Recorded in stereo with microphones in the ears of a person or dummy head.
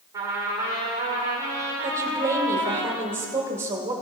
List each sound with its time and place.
0.1 s a trumpet: 10° right (ahead or behind), 1.7 m
1.8 s a woman speaking: 20° right (ahead or behind), 1.2 m